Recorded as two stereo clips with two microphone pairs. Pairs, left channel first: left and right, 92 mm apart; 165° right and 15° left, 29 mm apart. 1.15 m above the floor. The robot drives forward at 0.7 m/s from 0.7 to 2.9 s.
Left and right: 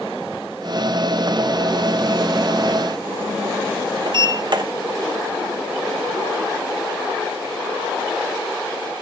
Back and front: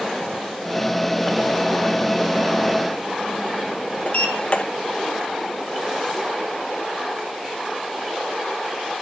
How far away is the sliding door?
About 1.0 m.